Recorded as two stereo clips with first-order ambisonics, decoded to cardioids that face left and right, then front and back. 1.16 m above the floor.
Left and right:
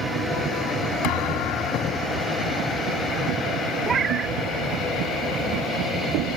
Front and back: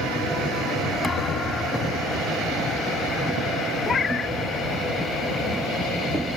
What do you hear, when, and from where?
1.0 s a thud: 70° left
3.9 s a cat meowing: 40° right